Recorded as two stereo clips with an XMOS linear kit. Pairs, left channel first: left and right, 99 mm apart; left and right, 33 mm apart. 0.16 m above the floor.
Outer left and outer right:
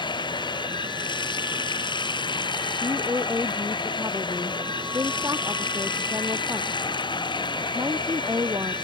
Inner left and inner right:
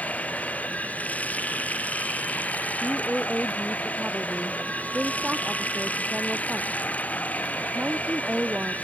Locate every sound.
0.0 s running water: 50° left (ahead or behind)
2.8 s a woman speaking: 30° right (ahead or behind)